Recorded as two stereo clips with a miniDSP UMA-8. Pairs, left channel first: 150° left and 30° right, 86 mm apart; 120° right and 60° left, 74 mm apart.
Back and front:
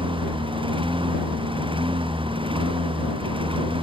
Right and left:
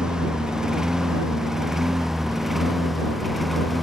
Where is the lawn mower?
20° right; by 3.8 s 30° right.